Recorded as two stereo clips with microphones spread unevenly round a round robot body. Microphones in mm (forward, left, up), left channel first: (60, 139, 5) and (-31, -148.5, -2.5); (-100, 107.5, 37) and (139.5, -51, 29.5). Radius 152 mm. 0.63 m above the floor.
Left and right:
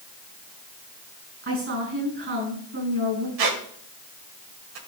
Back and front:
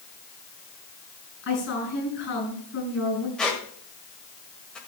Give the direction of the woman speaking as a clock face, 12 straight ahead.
5 o'clock.